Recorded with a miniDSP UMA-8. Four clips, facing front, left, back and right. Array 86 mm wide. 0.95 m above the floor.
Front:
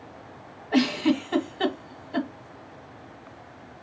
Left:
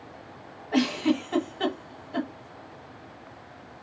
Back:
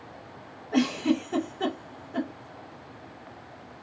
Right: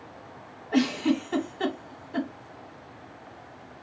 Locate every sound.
0.7 s a giggle: 10° left, 0.9 m